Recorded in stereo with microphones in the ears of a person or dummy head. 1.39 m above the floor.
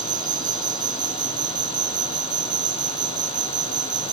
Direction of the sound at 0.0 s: 25° right (ahead or behind).